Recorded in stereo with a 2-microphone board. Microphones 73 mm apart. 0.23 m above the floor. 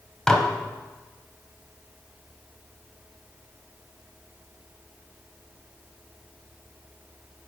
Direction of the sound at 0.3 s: 10° left (ahead or behind).